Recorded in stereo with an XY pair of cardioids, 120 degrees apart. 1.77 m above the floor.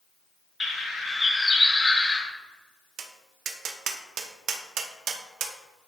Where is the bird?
15° left, 2.5 m.